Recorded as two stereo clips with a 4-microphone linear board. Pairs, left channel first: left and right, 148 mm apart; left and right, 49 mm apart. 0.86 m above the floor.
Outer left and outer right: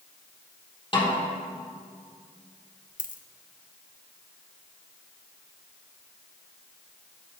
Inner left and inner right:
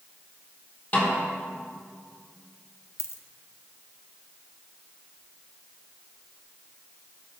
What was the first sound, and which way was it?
A snare drum, 35° left (ahead or behind).